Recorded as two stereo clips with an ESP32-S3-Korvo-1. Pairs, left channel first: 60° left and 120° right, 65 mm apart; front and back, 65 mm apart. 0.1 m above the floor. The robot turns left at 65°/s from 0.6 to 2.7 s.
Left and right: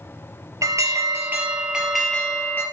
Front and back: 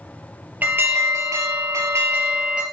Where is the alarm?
125° right, 2.5 m; by 2.6 s 105° left, 2.5 m.